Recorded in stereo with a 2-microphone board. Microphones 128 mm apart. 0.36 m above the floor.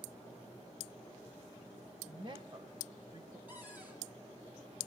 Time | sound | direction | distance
2.1 | a woman speaking | 40° right (ahead or behind) | 1.7 m
3.5 | a cupboard door | 15° right (ahead or behind) | 3.5 m